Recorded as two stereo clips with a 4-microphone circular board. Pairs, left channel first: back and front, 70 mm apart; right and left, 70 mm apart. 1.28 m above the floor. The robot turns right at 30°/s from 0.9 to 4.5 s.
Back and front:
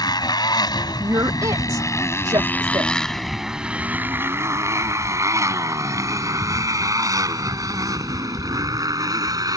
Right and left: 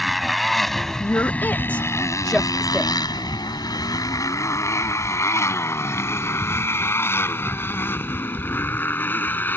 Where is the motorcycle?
Straight behind; by 9.6 s 25° right.